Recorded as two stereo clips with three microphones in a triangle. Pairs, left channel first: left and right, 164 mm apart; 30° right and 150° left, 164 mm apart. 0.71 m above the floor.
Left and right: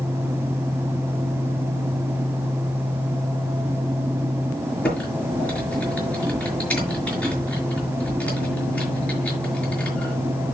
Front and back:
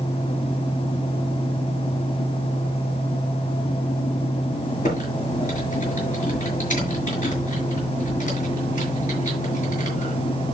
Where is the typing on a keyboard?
10° left, 5.5 m.